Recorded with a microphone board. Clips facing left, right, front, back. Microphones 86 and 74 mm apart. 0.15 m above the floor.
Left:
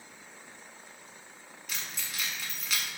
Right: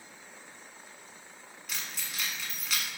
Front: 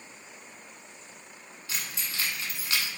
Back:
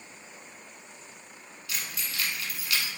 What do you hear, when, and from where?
1.7 s keys jangling: straight ahead, 0.9 m